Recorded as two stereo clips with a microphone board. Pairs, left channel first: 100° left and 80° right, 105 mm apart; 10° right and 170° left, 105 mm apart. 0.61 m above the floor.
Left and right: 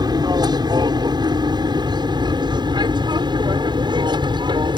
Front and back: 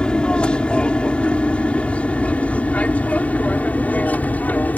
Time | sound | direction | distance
0.0 | an aircraft | 85° right | ?